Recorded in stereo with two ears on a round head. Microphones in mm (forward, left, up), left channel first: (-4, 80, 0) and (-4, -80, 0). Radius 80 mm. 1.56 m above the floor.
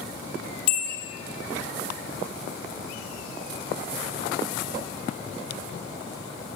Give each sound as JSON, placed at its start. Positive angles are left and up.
{"t": 0.7, "sound": "a bell", "side_deg": 55, "distance_m": 3.0}